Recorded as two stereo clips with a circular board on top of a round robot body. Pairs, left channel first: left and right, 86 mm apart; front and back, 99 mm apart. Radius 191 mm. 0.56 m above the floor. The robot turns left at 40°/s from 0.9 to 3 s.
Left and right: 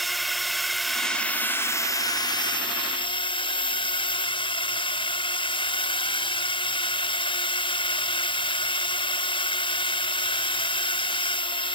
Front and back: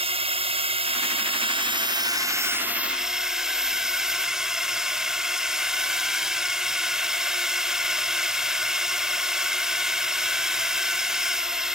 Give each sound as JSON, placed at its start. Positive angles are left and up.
{"t": 0.0, "sound": "a drone", "azimuth_deg": 180}